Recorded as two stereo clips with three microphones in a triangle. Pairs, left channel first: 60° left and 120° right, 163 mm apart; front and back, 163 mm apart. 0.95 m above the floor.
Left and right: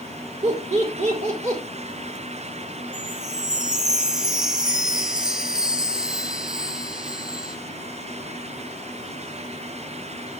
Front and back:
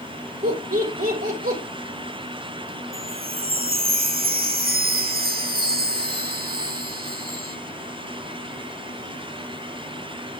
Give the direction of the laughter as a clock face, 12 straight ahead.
5 o'clock.